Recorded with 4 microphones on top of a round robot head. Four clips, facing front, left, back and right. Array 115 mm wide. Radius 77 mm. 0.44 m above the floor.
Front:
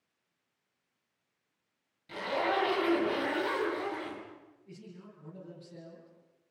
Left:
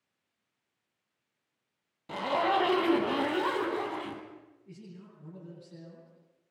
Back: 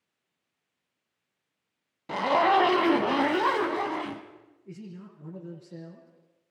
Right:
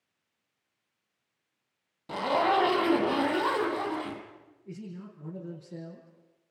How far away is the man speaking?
About 6.5 m.